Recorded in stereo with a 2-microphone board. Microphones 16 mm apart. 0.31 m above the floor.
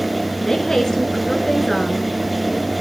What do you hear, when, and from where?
0.5 s a woman speaking: 30° left (ahead or behind), 5 m